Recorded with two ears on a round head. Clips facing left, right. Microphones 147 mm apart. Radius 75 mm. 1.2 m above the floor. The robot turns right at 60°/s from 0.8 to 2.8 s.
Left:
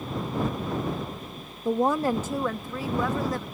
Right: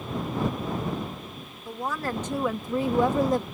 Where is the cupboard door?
No cupboard door in this recording.